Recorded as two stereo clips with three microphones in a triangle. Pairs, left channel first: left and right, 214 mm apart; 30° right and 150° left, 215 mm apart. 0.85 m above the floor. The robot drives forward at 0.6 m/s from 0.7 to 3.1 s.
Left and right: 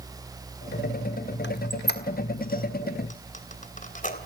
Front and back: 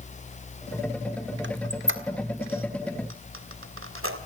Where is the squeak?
125° left, 1.9 m; by 4.2 s 140° left, 2.5 m.